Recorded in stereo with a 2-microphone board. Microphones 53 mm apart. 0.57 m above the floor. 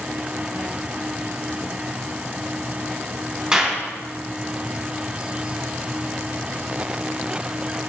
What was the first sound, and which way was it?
A clap, 15° right (ahead or behind).